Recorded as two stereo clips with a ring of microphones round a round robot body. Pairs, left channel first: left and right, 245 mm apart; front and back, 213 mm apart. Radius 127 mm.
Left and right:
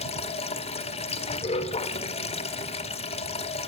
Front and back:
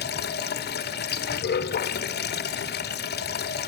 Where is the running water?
30° left, 1.8 m.